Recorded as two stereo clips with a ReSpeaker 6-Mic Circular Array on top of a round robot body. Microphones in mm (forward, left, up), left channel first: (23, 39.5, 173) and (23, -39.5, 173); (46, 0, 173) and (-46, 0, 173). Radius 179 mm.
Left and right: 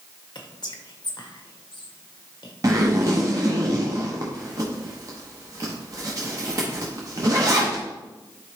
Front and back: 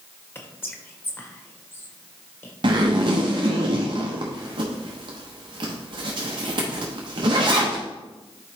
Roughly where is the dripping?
I don't hear dripping.